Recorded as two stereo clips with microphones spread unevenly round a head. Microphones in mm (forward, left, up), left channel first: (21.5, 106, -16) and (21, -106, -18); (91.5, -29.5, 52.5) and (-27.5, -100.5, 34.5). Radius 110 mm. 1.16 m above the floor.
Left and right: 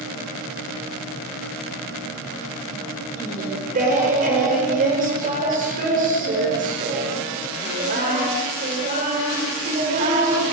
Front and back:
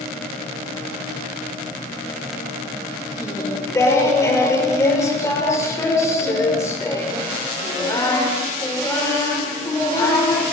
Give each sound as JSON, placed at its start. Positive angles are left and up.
{"t": 3.2, "sound": "singing", "azimuth_deg": -40, "distance_m": 5.5}